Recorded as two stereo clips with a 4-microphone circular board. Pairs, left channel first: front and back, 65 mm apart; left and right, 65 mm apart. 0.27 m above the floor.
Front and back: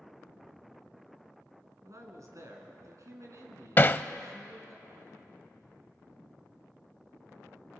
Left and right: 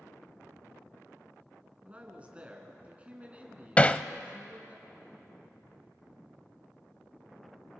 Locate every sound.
1.8 s a man speaking: 155° right, 3.5 m
3.8 s hammering: 35° left, 0.5 m